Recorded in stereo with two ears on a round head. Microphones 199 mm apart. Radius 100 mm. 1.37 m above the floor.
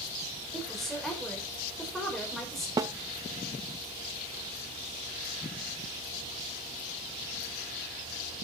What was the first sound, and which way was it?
A woman speaking, centre (ahead or behind).